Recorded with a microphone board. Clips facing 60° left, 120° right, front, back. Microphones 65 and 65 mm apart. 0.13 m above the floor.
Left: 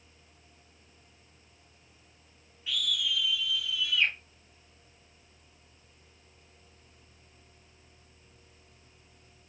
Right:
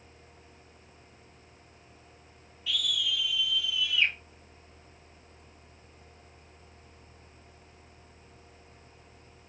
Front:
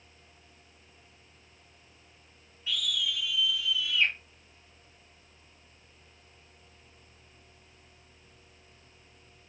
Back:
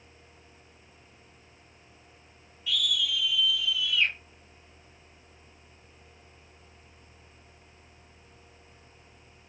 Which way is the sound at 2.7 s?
20° left.